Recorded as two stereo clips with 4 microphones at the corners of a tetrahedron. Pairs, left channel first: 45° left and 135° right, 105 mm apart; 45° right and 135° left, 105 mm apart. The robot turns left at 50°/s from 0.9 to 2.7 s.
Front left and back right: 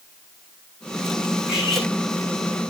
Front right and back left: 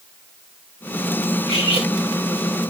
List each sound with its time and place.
1.5 s cutlery clinking: 145° left, 5 m; by 1.9 s 125° left, 5 m